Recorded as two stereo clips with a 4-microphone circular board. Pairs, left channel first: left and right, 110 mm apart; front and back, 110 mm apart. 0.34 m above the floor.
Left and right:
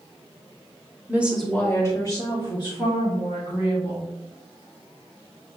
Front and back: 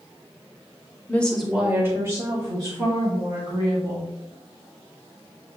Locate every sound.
1.1 s a woman speaking: 50° right, 0.8 m; by 4.1 s 130° left, 3 m